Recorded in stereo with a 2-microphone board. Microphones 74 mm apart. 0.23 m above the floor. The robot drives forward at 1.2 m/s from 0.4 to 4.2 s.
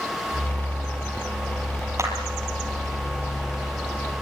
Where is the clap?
40° right (ahead or behind), 6 m.